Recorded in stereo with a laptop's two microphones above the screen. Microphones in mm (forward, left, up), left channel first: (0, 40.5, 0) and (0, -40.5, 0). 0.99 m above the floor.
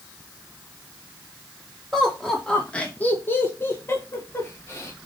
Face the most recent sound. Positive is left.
turn(degrees=30)  # may be behind; listen again after turning